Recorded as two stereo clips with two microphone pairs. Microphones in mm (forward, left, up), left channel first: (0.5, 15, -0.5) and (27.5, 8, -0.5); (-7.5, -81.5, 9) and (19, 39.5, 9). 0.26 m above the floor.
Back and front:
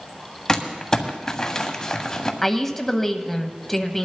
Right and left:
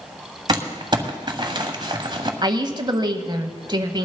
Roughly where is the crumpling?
Left.